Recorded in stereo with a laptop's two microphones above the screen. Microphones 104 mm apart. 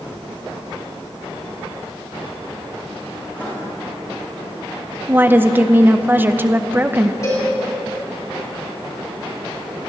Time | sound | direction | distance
3.3 | writing | 20° left (ahead or behind) | 4 m
5.1 | a woman speaking | 20° right (ahead or behind) | 0.8 m
7.2 | a cowbell | 35° left (ahead or behind) | 4 m